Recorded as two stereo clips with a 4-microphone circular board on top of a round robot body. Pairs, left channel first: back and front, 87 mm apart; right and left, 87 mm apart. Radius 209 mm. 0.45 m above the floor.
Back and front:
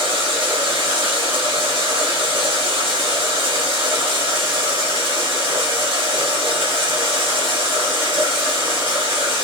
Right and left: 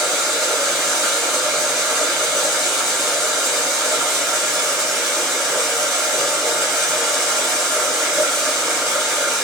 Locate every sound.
0.0 s running water: straight ahead, 3 m